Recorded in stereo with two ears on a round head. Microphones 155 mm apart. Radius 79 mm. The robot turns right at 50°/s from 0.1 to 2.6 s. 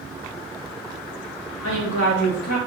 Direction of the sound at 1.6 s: 80° left.